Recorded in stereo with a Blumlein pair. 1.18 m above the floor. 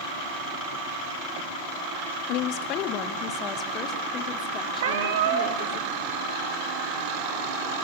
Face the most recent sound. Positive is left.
turn(degrees=-55)